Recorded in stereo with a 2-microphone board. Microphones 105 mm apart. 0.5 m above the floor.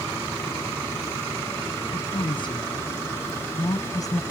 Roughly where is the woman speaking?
Left.